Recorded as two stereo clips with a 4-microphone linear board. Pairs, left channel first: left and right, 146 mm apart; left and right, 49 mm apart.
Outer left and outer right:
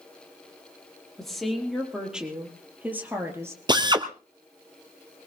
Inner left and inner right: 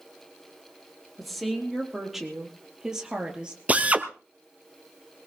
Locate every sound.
1.2 s a woman speaking: 5° left (ahead or behind), 4 m; by 3.6 s 20° right (ahead or behind), 3 m
3.7 s a drill: 30° right (ahead or behind), 1.1 m